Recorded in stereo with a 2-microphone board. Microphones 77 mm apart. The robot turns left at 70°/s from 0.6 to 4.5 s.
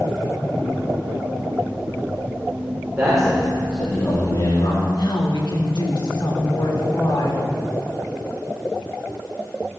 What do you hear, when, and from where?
3.0 s a man speaking: 160° right, 4 m; by 4.8 s 95° left, 4 m
4.8 s a woman speaking: 80° left, 2.5 m